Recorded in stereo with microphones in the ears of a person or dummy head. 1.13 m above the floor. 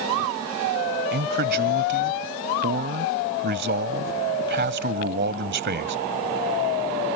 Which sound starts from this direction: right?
A man speaking, at 1.1 s.